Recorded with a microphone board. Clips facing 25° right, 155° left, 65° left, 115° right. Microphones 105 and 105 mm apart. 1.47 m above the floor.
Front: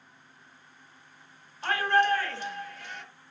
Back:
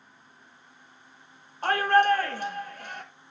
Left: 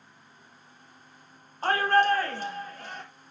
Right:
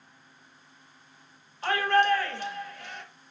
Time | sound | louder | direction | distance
1.6 | a shout | back 4 dB, left 1 dB | 115° left | 2.5 m